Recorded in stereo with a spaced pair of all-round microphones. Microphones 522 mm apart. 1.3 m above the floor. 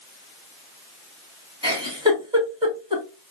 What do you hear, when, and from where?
1.6 s a giggle: 10° right (ahead or behind), 2 m